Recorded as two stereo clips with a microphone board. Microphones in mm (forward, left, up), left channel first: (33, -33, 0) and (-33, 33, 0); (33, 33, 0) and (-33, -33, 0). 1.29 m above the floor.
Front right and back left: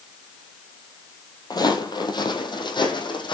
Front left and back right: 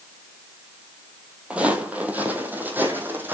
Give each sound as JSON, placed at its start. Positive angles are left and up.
{"t": 1.5, "sound": "footsteps", "azimuth_deg": -65, "distance_m": 1.9}